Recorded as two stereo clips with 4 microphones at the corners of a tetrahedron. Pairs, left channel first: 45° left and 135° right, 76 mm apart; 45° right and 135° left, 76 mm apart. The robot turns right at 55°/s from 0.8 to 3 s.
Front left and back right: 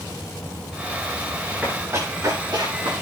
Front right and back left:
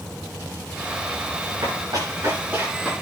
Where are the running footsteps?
150° left, 8.5 m; by 2.9 s 145° right, 8 m.